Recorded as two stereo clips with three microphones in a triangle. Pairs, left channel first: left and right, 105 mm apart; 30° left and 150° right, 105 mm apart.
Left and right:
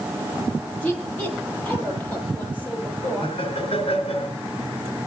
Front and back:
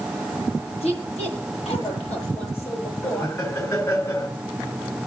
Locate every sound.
0.8 s a woman speaking: 15° left, 10 m
3.0 s laughter: 85° left, 4 m